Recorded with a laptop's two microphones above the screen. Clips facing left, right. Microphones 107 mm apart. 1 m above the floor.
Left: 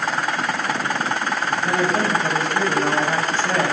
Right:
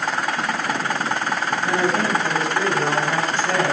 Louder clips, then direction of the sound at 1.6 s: Even; 45° left (ahead or behind).